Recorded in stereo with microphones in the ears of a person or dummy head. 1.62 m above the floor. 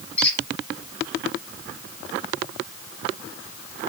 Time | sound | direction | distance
0.2 | a squeak | 10° left (ahead or behind) | 4 m